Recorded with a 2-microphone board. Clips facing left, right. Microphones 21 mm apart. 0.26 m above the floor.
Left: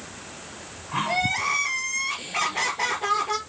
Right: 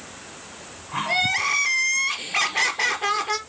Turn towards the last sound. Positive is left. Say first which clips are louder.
# right 3 dB
turn(degrees=-30)  # may be behind; listen again after turning